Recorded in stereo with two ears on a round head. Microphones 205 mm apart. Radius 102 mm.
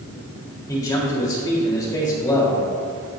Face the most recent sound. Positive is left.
turn(degrees=15)  # may be behind; listen again after turning